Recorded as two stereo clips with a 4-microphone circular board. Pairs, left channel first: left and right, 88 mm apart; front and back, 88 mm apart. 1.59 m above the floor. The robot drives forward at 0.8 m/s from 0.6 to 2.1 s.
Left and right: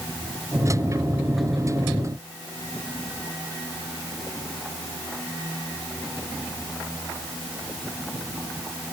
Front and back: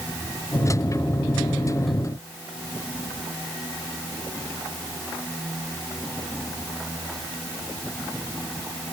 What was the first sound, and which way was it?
Only background noise.